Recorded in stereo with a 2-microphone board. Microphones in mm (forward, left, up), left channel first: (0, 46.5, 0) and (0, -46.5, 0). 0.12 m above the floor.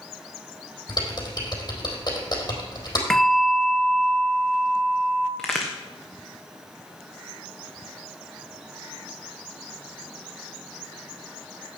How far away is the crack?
About 2.5 m.